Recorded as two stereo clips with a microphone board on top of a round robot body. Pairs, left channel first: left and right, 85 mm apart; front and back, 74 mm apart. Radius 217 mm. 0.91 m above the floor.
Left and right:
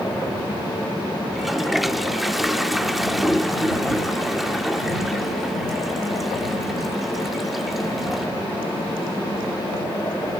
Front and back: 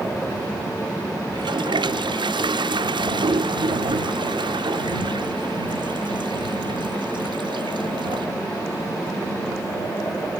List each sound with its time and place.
1.3 s a toilet flushing: straight behind